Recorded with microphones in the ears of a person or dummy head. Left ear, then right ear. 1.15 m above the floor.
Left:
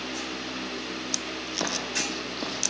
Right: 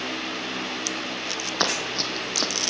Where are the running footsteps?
60° right (ahead or behind), 3 m.